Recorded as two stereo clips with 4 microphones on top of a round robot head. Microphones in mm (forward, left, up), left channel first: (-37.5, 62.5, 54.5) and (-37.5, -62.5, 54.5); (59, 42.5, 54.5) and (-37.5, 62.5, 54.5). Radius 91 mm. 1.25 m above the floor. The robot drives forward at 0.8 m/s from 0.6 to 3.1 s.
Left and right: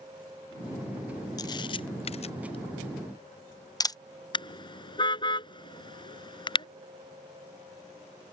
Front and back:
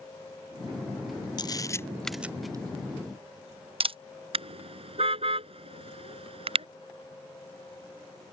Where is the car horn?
145° left.